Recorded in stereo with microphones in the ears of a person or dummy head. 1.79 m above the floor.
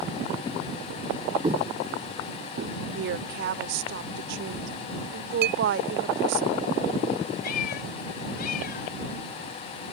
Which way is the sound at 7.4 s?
55° left (ahead or behind).